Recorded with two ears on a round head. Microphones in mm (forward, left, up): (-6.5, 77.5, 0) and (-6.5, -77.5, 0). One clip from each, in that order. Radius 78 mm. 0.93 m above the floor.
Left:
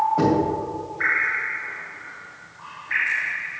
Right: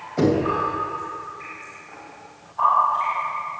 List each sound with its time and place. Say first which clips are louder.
0.2 s knocking: even; 40° right (ahead or behind), 3 m